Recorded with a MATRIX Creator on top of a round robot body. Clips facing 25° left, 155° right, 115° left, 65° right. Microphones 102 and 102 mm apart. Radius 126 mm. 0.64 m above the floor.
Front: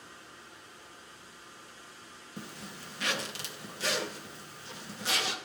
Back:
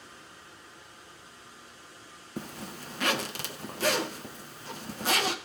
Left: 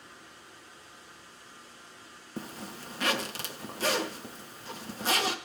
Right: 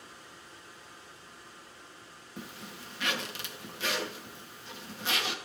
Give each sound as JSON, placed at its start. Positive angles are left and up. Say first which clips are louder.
{"t": 2.4, "sound": "a zipper", "louder": "back 6 dB, left 5 dB", "azimuth_deg": 160, "distance_m": 0.6}